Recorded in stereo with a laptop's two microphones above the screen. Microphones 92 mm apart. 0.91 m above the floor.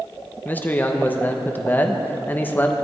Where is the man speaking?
20° left (ahead or behind), 0.8 m.